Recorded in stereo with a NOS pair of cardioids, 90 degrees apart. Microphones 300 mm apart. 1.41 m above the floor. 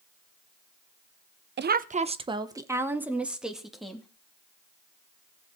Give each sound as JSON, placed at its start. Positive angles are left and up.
{"t": 1.6, "sound": "a woman speaking", "azimuth_deg": -35, "distance_m": 1.0}